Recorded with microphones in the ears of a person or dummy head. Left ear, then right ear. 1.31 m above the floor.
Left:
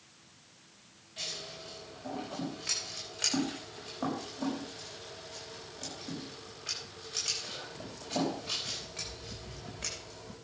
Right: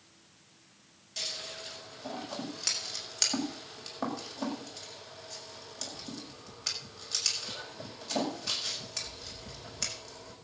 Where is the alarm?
No alarm in this recording.